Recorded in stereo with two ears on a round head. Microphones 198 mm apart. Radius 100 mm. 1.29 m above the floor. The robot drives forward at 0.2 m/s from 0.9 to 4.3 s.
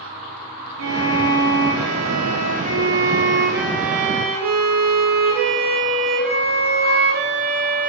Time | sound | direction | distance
0.8 | a violin | 65° right (ahead or behind) | 0.7 m